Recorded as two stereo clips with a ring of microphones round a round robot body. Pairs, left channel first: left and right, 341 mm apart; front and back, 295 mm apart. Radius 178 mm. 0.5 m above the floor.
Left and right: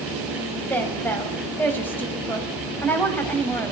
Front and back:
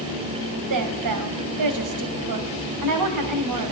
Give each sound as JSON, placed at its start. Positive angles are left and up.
{"t": 0.7, "sound": "a woman speaking", "azimuth_deg": 175, "distance_m": 3.5}